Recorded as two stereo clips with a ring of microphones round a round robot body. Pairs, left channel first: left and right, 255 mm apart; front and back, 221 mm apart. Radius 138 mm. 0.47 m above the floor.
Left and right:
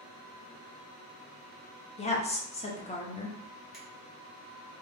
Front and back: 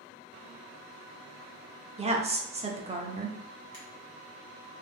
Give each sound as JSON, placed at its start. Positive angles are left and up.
{"t": 2.0, "sound": "a woman speaking", "azimuth_deg": 140, "distance_m": 0.9}
{"t": 3.7, "sound": "a finger snap", "azimuth_deg": 0, "distance_m": 1.4}